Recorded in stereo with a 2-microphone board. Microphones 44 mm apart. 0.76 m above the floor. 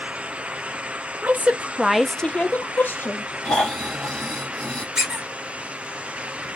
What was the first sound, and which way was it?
A woman speaking, 40° right (ahead or behind).